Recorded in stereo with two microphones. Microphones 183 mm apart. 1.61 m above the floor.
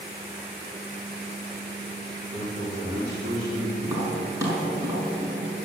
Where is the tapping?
15° right (ahead or behind), 5.5 m.